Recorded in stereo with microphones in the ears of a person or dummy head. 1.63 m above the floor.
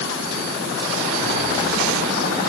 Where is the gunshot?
No gunshot in this recording.